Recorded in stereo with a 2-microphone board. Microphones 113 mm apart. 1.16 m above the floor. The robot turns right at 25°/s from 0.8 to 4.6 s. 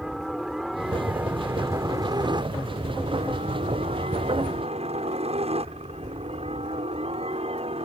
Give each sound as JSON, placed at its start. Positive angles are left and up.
{"t": 0.0, "sound": "a helicopter", "side_deg": 0}